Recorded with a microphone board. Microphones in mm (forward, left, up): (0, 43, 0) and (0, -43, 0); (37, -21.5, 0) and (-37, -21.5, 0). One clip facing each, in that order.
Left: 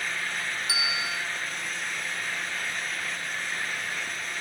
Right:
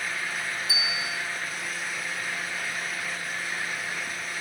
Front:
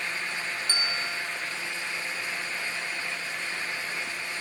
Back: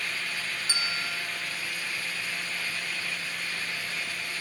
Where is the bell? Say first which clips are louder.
Left 1 dB, even; 100° left, 1.5 m.